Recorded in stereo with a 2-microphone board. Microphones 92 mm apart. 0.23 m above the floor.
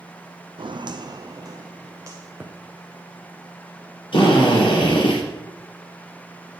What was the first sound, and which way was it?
Footsteps, 65° right (ahead or behind).